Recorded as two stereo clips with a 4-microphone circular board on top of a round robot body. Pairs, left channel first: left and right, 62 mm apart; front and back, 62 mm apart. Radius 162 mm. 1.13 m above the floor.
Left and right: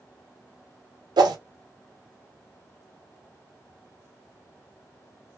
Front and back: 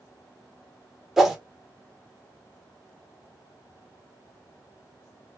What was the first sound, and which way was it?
A whoosh, 95° right.